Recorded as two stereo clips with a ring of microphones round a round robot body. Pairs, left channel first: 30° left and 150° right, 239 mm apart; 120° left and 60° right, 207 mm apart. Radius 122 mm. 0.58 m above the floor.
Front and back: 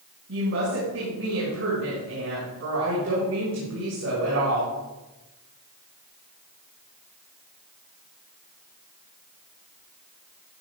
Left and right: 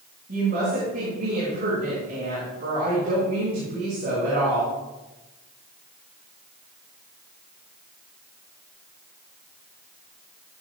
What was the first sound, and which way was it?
A woman speaking, 115° right.